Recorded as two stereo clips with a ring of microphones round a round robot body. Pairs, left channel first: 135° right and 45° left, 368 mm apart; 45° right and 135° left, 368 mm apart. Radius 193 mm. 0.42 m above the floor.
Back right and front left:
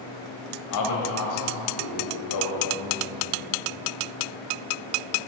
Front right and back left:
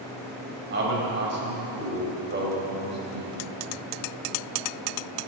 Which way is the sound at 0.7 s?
165° right.